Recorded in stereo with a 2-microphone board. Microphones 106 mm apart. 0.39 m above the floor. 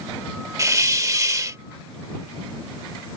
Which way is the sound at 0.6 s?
30° right (ahead or behind).